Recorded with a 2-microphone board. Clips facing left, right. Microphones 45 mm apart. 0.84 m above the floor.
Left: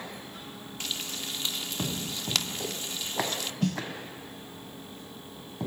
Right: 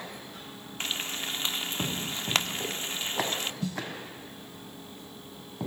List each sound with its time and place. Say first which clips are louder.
0.8 s frying: right 3 dB; 30° right (ahead or behind), 1.6 m
3.6 s a snare drum: left 4 dB; 55° left (ahead or behind), 1.6 m